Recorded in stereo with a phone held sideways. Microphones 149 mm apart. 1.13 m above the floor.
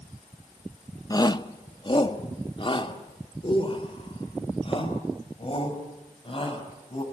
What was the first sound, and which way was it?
A shout, 25° left (ahead or behind).